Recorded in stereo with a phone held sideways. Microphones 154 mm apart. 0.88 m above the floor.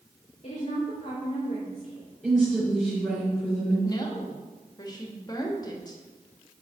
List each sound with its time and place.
0.4 s a woman speaking: 45° left (ahead or behind), 1.8 m
2.2 s a woman speaking: 5° right (ahead or behind), 3.5 m
3.8 s a woman speaking: 25° left (ahead or behind), 1.3 m